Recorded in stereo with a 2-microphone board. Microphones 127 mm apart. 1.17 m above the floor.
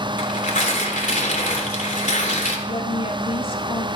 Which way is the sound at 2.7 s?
45° left (ahead or behind).